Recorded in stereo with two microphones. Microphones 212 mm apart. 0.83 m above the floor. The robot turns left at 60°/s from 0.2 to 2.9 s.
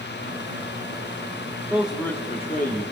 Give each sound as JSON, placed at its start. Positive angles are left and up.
{"t": 1.7, "sound": "a man speaking", "azimuth_deg": -165, "distance_m": 2.5}